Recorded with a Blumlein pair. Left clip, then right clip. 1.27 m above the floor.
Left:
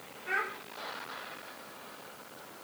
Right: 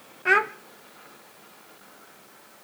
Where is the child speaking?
40° right, 0.6 m.